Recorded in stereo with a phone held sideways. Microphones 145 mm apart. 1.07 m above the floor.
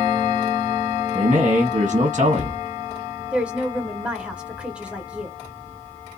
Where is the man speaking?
50° right (ahead or behind), 0.7 m.